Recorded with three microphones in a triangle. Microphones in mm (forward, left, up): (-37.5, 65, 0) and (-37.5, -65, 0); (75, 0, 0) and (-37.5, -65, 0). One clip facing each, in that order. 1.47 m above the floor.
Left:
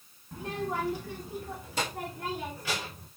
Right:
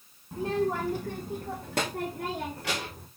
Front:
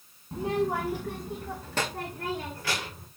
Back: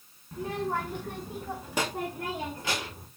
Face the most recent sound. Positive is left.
turn(degrees=-85)